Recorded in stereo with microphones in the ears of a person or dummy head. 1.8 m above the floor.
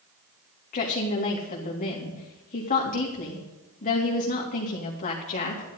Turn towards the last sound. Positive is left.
turn(degrees=40)  # may be behind; listen again after turning